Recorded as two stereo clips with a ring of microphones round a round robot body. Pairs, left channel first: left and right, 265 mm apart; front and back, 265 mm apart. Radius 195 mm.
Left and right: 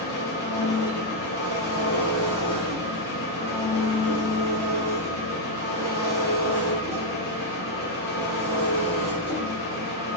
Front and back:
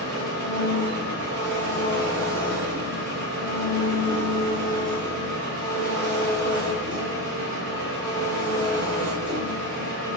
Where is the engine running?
170° left, 4 m.